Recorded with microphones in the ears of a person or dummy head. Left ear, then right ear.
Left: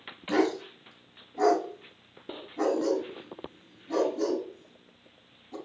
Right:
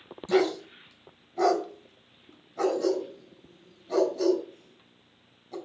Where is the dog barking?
45° right (ahead or behind), 3.5 m.